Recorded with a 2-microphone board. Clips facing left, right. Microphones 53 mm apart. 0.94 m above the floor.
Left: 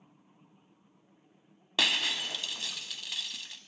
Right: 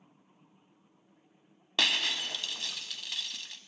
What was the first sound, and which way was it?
Breaking glass, centre (ahead or behind).